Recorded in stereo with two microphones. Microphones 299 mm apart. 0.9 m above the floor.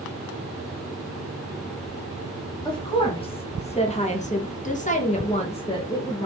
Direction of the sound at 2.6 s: 15° left (ahead or behind).